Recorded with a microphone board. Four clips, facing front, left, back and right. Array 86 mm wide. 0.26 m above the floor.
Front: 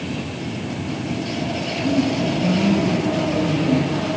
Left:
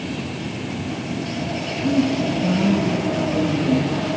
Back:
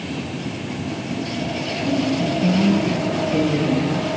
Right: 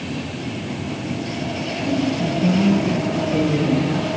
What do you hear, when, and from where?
1.8 s a woman speaking: 125° right, 5.5 m